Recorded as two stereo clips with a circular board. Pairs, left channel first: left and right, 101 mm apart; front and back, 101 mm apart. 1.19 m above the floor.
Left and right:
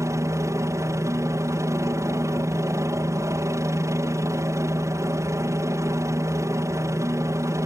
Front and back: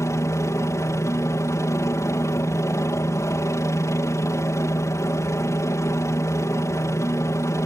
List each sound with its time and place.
0.0 s a helicopter: 45° right